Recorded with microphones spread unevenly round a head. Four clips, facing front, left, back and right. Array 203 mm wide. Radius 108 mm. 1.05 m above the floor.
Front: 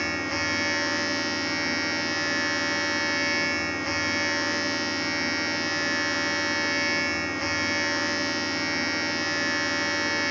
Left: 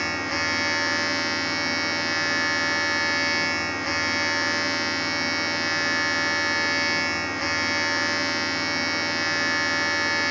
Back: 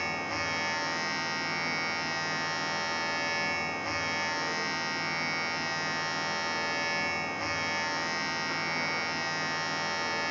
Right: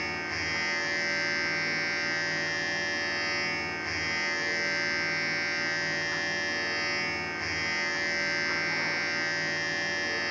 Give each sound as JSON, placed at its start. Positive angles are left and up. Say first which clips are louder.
{"t": 0.0, "sound": "a machine running", "louder": "left 7 dB, front 4 dB", "azimuth_deg": 60, "distance_m": 1.4}